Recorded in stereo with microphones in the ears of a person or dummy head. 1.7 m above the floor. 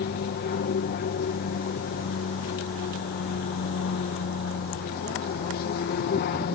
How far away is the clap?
No clap in this recording.